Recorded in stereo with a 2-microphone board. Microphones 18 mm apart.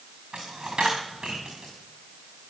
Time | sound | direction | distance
0.3 | a dropped coin | 75° right (ahead or behind) | 5 m